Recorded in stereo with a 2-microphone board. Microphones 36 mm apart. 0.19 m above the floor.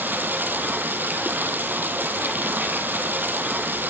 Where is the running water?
75° right (ahead or behind), 2.0 m.